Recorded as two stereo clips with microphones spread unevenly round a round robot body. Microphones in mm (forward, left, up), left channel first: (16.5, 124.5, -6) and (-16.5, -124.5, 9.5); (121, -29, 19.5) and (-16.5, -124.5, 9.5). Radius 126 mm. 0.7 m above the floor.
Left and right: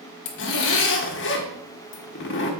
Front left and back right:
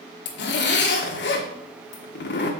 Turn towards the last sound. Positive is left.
turn(degrees=40)